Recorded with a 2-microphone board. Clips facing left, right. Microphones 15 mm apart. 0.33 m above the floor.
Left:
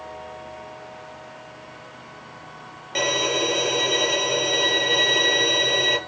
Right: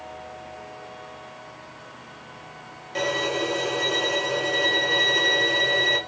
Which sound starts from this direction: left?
A violin, at 3.0 s.